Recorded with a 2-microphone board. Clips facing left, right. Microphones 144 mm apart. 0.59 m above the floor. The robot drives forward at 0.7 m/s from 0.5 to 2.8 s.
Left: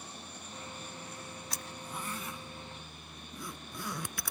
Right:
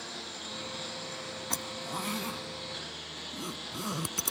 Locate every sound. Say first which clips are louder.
0.0 s a lawn mower: right 5 dB; 80° right; by 4.3 s 75° right (ahead or behind)
1.5 s a zipper: right 6 dB; 50° right (ahead or behind); by 4.3 s 25° right (ahead or behind)